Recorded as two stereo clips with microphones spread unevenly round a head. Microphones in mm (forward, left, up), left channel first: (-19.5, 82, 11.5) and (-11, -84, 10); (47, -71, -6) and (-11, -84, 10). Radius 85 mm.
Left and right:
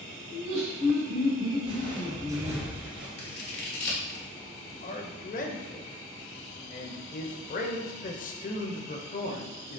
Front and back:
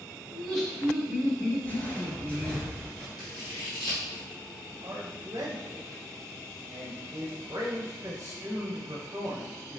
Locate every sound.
0.3 s laughter: 70° right, 2 m
1.6 s footsteps: 55° right, 1.5 m; by 3.1 s 160° right, 1.2 m
3.2 s scissors: 60° left, 1.3 m
4.8 s a man speaking: 135° left, 0.7 m